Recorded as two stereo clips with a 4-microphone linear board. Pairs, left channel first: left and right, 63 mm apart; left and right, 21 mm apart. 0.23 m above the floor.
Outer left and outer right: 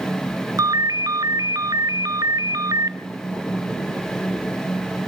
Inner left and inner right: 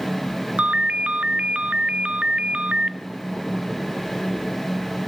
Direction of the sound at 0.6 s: 70° right (ahead or behind).